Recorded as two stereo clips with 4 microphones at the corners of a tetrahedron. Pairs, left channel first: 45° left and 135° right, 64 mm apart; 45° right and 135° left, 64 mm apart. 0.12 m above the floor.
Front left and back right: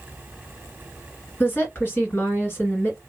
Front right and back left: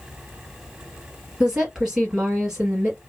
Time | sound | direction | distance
1.4 | a woman speaking | 65° left | 2 m